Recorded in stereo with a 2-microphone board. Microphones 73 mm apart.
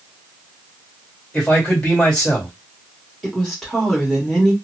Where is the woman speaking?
Centre (ahead or behind), 1.2 m.